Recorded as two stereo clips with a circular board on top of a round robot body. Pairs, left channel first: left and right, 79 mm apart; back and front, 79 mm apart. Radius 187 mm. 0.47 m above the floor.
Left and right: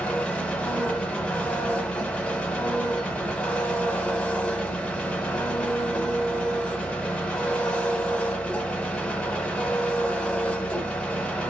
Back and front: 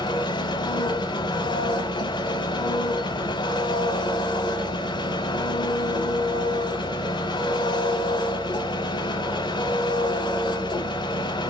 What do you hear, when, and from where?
0.0 s an engine running: 165° left, 0.9 m